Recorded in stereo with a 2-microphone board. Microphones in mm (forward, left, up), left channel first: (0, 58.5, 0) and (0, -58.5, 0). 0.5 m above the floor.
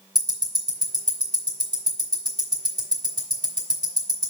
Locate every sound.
0.1 s ticking: 40° right (ahead or behind), 2.5 m